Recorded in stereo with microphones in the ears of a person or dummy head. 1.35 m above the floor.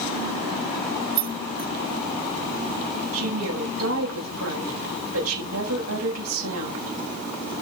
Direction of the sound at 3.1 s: 85° right.